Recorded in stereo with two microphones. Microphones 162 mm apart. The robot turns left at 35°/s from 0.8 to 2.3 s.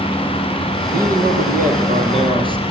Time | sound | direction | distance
0.9 | a man speaking | 100° right | 7.5 m